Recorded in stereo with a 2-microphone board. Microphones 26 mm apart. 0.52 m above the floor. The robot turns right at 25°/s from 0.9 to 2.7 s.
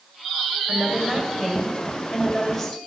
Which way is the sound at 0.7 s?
5° right.